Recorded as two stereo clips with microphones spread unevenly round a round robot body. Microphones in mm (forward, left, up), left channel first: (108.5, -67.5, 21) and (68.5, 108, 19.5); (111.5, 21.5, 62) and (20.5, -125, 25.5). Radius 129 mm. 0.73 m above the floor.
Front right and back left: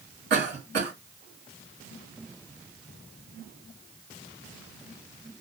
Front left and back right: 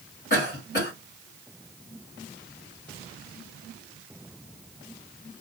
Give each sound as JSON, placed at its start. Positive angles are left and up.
{"t": 0.3, "sound": "a cough", "azimuth_deg": 95, "distance_m": 1.9}